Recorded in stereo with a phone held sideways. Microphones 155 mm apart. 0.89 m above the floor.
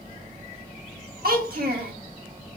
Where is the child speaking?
80° right, 1.1 m.